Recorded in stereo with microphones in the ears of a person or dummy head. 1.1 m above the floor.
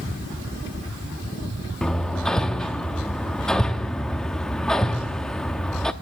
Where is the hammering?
5° left (ahead or behind), 0.7 m.